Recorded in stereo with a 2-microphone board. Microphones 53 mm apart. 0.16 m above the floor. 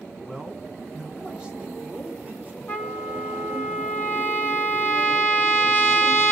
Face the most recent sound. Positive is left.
turn(degrees=35)  # may be behind; listen again after turning